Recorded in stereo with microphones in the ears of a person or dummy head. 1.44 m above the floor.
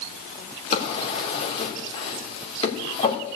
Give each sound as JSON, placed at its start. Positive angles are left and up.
{"t": 0.7, "sound": "a drawer", "side_deg": 35, "distance_m": 3.0}